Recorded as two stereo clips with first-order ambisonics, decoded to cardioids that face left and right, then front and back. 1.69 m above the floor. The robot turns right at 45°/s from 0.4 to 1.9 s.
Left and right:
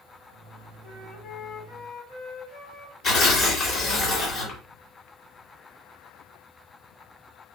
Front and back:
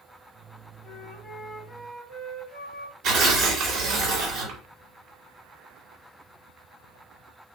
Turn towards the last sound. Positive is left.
turn(degrees=140)